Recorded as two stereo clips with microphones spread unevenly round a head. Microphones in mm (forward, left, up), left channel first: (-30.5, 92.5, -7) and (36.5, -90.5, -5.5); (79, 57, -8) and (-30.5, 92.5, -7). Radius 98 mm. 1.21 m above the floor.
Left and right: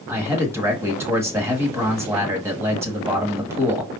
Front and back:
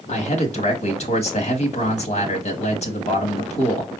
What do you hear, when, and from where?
0.1 s a man speaking: 5° left, 1.6 m